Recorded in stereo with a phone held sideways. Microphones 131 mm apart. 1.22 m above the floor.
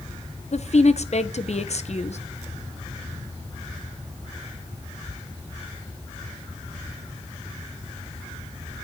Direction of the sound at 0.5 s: 55° left (ahead or behind).